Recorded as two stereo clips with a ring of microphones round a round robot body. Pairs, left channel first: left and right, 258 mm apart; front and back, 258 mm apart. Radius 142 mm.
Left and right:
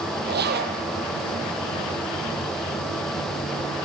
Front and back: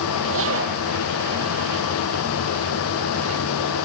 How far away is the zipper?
About 3 m.